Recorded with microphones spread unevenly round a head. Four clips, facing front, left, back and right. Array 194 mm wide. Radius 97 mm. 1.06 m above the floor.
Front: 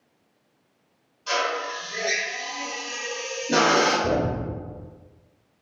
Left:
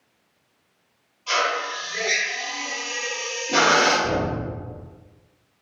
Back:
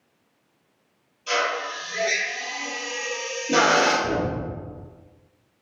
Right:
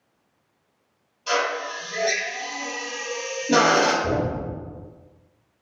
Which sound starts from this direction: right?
A drill, at 1.3 s.